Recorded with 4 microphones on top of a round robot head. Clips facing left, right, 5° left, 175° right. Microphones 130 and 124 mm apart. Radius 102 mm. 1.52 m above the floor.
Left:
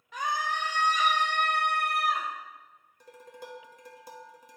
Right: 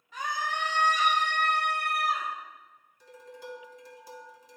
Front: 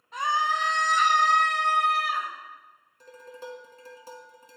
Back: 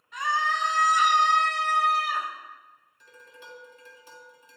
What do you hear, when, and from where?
0.1 s a scream: 60° left, 0.6 m; by 2.3 s 135° left, 1.3 m
3.0 s dishes clattering: 55° left, 1.0 m